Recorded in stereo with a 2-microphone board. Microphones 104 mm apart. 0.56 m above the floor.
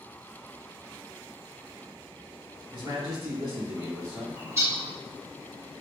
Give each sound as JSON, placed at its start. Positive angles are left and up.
{"t": 2.7, "sound": "a man speaking", "side_deg": -45, "distance_m": 1.6}
{"t": 4.3, "sound": "a bird", "side_deg": -25, "distance_m": 0.7}